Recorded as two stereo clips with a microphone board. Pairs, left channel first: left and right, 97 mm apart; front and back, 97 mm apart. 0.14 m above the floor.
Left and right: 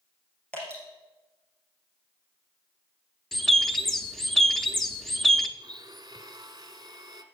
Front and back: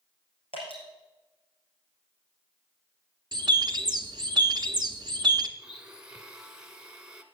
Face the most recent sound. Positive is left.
turn(degrees=-105)